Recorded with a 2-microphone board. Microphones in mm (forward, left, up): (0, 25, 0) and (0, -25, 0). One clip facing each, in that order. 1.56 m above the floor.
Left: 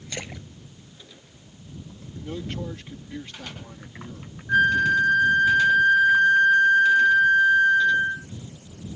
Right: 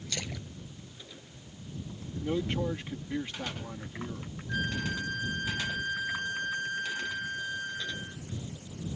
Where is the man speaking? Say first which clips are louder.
Right 2 dB; 20° right (ahead or behind).